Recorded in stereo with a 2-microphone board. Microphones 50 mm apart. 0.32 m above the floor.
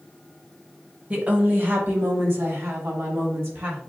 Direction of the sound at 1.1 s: 30° right (ahead or behind).